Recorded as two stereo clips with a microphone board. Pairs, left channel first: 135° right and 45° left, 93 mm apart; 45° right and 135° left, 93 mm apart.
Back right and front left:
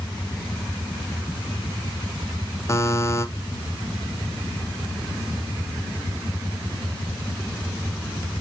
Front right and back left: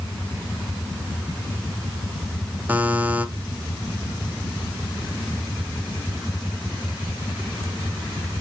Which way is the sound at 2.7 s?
165° right.